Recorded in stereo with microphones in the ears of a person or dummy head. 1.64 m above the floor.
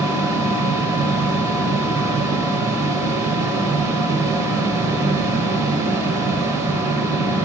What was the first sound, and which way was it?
A machine running, 15° right (ahead or behind).